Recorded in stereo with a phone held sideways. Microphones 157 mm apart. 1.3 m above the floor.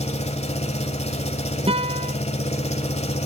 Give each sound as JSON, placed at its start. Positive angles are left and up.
{"t": 0.0, "sound": "an engine running", "side_deg": 45, "distance_m": 1.4}
{"t": 1.7, "sound": "a guitar", "side_deg": -35, "distance_m": 1.2}